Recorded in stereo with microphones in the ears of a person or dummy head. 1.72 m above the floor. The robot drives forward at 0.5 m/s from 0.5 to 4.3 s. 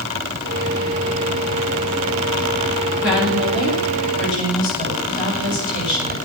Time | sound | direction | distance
3.0 | a woman speaking | 70° left (ahead or behind) | 8.5 m